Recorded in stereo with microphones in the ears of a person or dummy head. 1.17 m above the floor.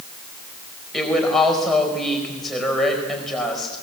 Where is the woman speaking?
5° left (ahead or behind), 5 m.